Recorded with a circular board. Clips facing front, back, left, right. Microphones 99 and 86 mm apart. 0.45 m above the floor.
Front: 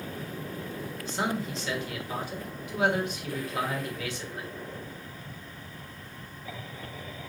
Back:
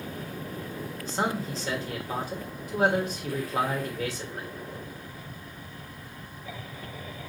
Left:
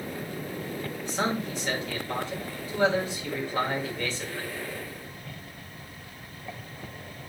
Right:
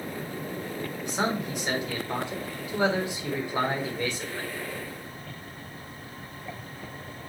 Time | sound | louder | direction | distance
1.1 | a man speaking | back 2 dB, even | 155° right | 1.5 m